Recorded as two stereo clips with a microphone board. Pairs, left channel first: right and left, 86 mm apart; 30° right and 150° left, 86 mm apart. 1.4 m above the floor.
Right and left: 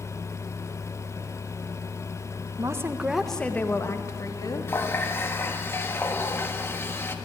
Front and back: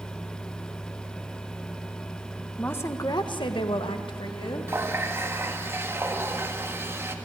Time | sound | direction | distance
2.6 | a woman speaking | 40° left | 1.4 m
4.7 | a running tap | 150° right | 1.5 m